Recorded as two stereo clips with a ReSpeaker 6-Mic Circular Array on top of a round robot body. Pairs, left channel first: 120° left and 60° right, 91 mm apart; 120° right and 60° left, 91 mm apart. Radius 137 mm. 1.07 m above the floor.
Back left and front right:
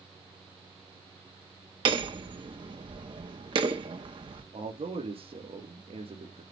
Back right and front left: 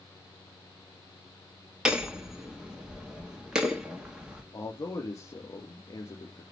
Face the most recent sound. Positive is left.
turn(degrees=-70)